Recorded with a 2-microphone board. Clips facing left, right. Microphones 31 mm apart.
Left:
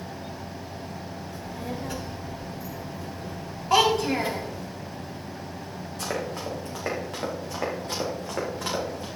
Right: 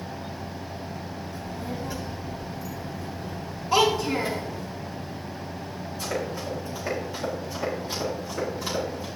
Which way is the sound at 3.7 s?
75° left (ahead or behind).